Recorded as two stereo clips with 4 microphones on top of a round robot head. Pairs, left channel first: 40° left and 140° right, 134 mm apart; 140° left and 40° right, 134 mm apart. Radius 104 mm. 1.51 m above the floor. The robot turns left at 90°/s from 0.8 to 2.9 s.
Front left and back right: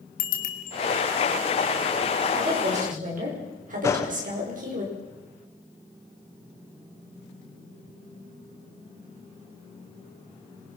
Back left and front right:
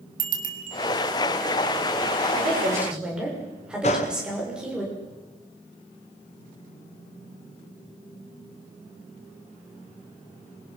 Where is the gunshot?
105° left, 0.8 m.